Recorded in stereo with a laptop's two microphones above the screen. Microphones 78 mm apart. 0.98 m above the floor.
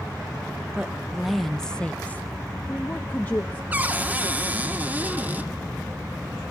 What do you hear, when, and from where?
0.8 s a woman speaking: 10° right (ahead or behind), 1.0 m; by 3.6 s 25° left (ahead or behind), 1.5 m
3.7 s a cupboard door: 20° right (ahead or behind), 0.8 m